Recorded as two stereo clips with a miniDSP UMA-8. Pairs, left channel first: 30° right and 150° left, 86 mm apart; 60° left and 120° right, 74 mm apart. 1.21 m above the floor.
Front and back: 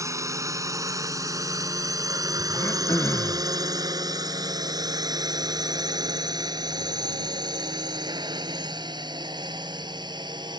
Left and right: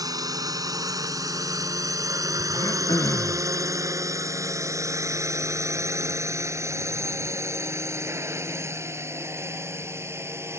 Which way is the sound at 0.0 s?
155° right.